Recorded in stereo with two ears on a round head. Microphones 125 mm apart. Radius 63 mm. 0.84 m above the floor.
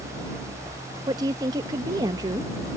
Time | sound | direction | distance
1.1 | a woman speaking | 25° right (ahead or behind) | ?